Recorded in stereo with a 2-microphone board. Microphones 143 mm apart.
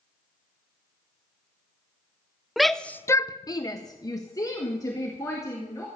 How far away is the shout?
About 0.7 m.